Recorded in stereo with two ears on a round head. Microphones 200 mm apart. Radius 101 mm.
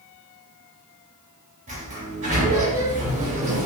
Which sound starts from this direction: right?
A sliding door, at 1.7 s.